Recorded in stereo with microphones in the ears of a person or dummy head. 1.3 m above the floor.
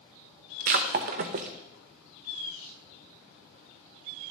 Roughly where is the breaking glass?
Right.